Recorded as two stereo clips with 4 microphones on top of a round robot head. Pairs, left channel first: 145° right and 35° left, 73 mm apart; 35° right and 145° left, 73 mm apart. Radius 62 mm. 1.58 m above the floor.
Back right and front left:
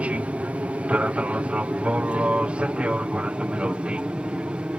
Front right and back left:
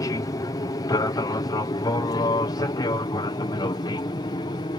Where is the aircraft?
30° right; by 4.8 s 40° right.